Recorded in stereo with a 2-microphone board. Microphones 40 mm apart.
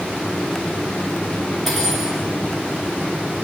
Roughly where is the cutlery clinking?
Centre.